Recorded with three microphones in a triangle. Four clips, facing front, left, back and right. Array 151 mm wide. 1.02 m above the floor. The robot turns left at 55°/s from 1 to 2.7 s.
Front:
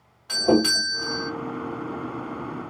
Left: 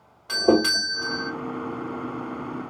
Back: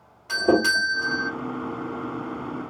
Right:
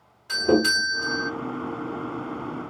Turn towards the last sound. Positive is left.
turn(degrees=5)